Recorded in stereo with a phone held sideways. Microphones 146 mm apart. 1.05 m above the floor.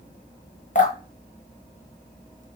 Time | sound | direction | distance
0.8 | dripping | 55° left (ahead or behind) | 0.8 m